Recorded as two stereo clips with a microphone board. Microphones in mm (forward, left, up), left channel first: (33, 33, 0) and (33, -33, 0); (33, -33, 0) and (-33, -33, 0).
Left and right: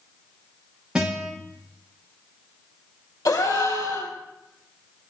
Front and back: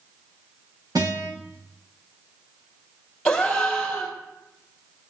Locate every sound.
0.9 s a guitar: 170° right, 7 m
3.2 s a gasp: 80° left, 3 m